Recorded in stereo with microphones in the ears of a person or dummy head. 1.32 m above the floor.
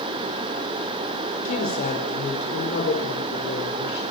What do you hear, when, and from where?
1.4 s a woman speaking: 45° left (ahead or behind), 5 m; by 4.0 s 65° left (ahead or behind), 5 m